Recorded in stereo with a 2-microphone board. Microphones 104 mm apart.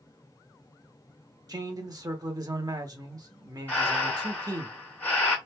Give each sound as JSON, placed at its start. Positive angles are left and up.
{"t": 1.5, "sound": "a man speaking", "side_deg": -35, "distance_m": 0.9}
{"t": 3.7, "sound": "breathing", "side_deg": 15, "distance_m": 1.8}